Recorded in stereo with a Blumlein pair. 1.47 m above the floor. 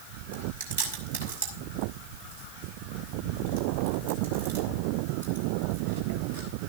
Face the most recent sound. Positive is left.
turn(degrees=-65)